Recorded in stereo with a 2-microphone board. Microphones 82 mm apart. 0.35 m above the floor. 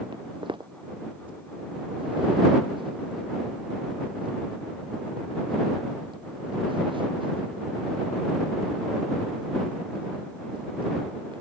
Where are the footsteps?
85° right.